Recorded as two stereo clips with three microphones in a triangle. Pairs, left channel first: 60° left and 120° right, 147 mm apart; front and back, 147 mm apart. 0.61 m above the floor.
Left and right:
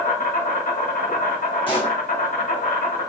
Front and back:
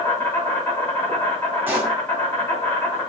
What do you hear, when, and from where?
0.0 s an insect: 70° left, 2.5 m
1.7 s a pop: 105° left, 1.6 m